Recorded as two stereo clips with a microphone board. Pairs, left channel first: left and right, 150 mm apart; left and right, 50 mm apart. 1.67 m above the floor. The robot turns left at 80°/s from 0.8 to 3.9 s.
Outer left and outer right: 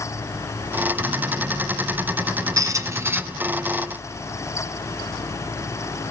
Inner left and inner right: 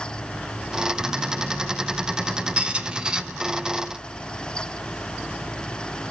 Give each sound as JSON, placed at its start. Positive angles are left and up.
{"t": 2.6, "sound": "a squeak", "side_deg": -20, "distance_m": 0.5}